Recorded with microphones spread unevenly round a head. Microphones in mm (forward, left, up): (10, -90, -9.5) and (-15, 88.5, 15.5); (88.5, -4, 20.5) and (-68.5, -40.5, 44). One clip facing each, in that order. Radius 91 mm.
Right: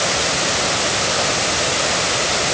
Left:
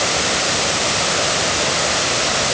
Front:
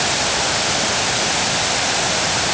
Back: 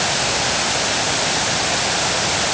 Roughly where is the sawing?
I don't hear sawing.